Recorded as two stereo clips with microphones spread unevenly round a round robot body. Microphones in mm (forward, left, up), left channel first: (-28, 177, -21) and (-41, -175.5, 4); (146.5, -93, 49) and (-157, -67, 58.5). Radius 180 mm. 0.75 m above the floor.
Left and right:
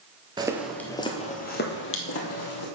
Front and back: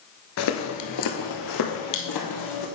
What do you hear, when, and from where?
0.4 s footsteps: 20° right, 0.9 m; by 2.7 s 40° left, 1.8 m